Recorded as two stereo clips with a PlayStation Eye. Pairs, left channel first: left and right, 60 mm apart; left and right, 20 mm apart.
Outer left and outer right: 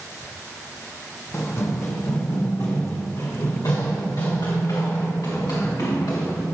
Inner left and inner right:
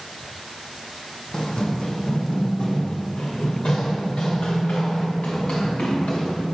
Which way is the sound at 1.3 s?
45° left (ahead or behind).